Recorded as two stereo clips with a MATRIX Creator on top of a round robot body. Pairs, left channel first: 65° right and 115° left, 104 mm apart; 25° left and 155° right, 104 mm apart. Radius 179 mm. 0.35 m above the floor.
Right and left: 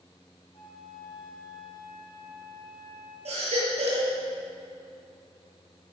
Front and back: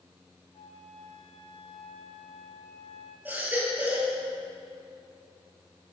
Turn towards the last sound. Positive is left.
turn(degrees=130)